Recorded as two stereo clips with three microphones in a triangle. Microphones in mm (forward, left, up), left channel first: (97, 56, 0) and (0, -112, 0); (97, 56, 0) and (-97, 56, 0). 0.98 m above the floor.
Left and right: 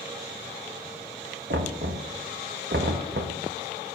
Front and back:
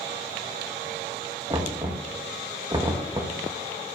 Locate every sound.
1.5 s knocking: 115° right, 1.0 m